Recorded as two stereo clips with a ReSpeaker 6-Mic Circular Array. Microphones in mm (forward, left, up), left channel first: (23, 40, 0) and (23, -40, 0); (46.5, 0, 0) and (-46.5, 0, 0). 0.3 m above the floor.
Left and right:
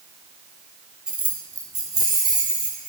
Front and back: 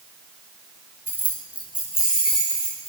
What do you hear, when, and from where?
1.1 s keys jangling: 160° right, 0.8 m; by 2.9 s 95° right, 2.5 m